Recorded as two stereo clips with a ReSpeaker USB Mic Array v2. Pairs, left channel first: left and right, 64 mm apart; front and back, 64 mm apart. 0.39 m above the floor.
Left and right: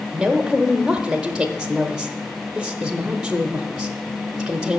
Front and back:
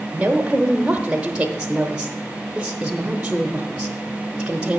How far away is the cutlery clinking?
I don't hear cutlery clinking.